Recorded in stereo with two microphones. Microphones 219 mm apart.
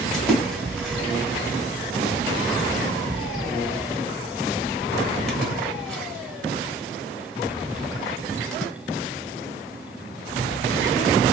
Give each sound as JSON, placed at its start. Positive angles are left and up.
{"t": 0.1, "sound": "a splash", "side_deg": 5, "distance_m": 1.0}